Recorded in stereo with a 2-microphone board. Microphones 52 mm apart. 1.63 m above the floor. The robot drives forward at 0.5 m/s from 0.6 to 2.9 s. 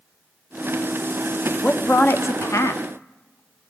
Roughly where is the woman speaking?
Left.